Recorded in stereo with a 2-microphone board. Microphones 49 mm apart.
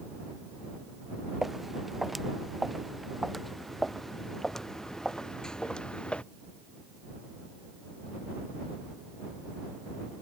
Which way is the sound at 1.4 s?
5° right (ahead or behind).